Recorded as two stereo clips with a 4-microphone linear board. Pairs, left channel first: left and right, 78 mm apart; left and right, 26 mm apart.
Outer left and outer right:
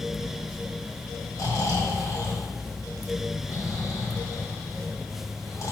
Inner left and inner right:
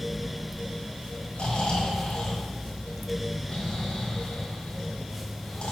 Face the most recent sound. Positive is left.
turn(degrees=40)  # may be behind; listen again after turning